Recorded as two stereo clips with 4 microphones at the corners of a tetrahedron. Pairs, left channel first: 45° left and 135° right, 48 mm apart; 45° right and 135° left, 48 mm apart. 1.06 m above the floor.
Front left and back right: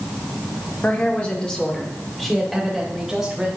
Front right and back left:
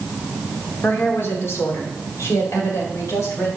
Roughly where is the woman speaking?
Ahead.